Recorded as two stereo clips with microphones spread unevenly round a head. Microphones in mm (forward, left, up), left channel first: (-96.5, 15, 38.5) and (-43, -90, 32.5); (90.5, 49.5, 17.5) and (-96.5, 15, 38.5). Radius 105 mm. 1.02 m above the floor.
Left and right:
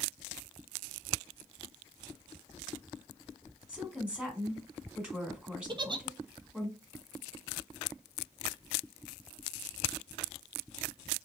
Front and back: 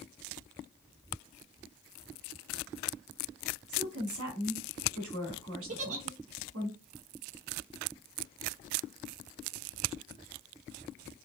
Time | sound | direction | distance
3.7 | a woman speaking | 145° right | 1.9 m
5.7 | a giggle | 115° right | 0.6 m